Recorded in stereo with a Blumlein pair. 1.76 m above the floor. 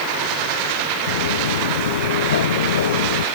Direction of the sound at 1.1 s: 65° left.